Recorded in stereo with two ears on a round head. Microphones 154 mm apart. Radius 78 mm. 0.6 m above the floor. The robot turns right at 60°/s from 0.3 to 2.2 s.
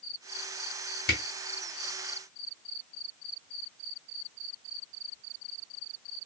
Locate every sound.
1.1 s a camera shutter: 55° left (ahead or behind), 1.3 m; by 1.2 s 65° left (ahead or behind), 1.3 m